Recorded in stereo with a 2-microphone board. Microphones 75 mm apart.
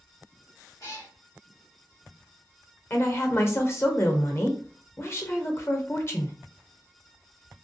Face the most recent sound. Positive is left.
turn(degrees=35)  # may be behind; listen again after turning